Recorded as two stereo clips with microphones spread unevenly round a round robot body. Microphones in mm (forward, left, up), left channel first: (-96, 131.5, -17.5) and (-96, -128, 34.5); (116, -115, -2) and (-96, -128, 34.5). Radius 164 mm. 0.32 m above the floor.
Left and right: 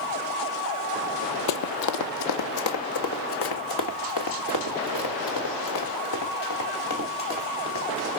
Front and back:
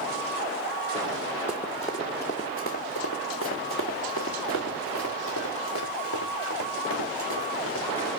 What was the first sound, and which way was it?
Running footsteps, 100° left.